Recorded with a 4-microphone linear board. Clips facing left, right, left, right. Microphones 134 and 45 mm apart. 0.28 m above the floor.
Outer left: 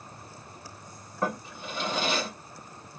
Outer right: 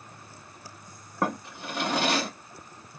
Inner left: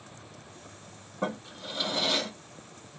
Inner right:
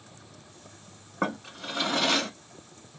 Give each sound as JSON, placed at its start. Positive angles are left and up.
{"t": 1.2, "sound": "a drawer", "side_deg": -80, "distance_m": 0.8}